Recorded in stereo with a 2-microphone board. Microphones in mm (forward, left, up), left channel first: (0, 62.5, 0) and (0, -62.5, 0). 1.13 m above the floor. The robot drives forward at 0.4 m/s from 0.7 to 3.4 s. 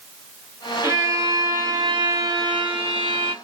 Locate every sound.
0.8 s a violin: 25° right (ahead or behind), 1.2 m; by 3.4 s 45° right (ahead or behind), 0.7 m